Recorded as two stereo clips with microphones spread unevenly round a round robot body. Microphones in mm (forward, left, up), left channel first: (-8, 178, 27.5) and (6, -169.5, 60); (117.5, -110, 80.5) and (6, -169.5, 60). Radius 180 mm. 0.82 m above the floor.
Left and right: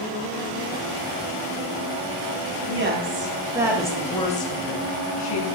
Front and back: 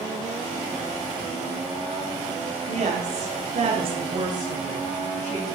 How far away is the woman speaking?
About 1.8 m.